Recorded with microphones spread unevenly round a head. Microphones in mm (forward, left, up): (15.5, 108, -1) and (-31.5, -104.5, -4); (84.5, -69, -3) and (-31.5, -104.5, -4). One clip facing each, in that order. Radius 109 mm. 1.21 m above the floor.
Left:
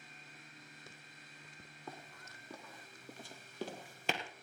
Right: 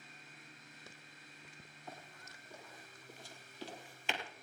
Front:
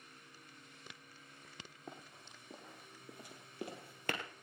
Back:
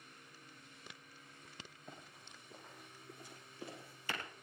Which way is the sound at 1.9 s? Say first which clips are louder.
Left 2 dB, front 3 dB; 55° left.